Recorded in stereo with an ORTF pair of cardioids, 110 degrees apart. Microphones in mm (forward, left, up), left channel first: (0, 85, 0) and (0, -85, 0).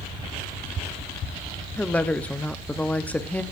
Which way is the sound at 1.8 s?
10° left.